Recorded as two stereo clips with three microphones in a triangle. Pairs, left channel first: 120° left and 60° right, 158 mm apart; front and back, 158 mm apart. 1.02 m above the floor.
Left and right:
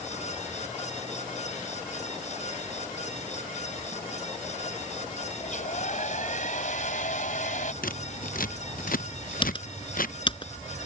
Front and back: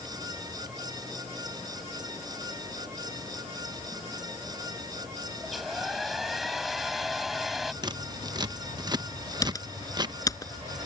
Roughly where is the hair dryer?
Left.